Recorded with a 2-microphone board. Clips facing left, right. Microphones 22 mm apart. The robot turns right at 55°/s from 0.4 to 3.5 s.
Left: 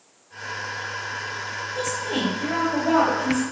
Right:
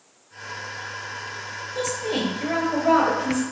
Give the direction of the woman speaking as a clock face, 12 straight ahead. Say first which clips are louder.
Right 1 dB; 5 o'clock.